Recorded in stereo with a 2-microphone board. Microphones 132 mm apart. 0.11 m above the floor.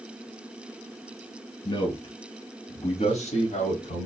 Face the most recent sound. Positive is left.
turn(degrees=65)  # may be behind; listen again after turning